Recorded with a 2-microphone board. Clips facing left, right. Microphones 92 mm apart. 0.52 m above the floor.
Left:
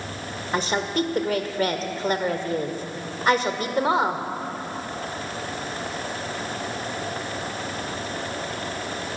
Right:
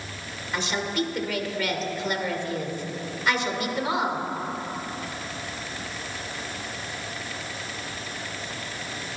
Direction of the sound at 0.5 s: 35° left (ahead or behind).